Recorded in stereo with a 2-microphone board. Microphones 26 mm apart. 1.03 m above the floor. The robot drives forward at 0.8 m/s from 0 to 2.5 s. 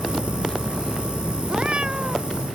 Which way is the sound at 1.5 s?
45° right (ahead or behind).